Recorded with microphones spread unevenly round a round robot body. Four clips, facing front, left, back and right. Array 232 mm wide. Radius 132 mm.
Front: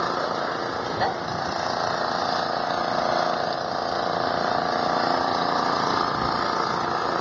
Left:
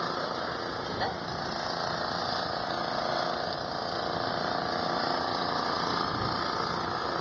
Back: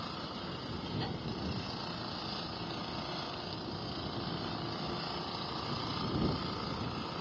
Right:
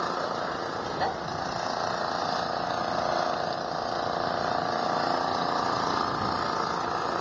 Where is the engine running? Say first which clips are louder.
Right 3 dB, front 17 dB; 10° right.